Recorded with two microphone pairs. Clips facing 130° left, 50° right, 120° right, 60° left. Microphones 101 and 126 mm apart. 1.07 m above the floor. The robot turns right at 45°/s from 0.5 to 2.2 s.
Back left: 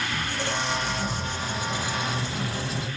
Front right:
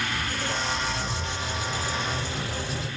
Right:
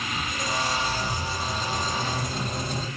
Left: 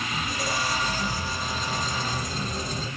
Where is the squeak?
140° left, 5 m; by 2.9 s 140° right, 5 m.